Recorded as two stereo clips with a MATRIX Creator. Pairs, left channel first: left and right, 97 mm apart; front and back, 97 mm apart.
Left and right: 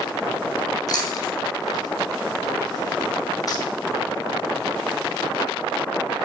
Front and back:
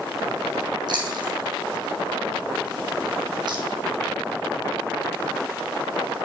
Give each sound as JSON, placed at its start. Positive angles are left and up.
{"t": 0.9, "sound": "chewing", "azimuth_deg": 140, "distance_m": 1.9}